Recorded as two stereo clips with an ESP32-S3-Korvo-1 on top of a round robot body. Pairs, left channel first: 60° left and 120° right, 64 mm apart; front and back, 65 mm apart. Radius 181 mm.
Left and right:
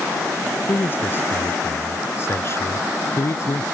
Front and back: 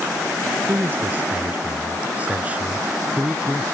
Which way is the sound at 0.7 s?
115° left.